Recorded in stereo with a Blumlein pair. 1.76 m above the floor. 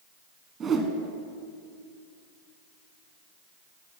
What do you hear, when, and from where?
0.6 s a whoosh: 15° right, 1.2 m